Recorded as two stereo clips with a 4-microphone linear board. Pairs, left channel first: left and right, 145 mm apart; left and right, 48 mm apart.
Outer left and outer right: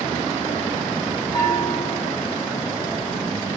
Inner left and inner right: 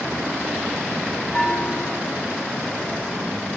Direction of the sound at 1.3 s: 30° left (ahead or behind).